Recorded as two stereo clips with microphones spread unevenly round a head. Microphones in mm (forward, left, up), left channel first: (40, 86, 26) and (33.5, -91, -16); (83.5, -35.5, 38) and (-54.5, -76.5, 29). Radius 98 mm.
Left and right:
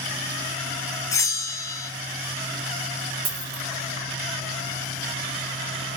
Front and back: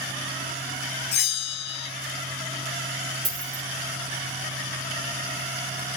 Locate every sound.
1.1 s a bell: 15° left, 0.6 m
3.2 s a dropped coin: 110° right, 1.8 m